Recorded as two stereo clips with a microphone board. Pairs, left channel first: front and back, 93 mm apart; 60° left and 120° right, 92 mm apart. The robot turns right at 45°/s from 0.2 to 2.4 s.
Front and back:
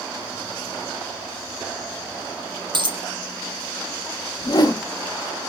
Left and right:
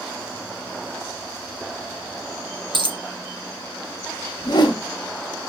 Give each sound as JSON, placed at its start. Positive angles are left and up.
{"t": 2.7, "sound": "a dropped coin", "azimuth_deg": -150, "distance_m": 0.8}
{"t": 4.4, "sound": "a whoosh", "azimuth_deg": 35, "distance_m": 0.6}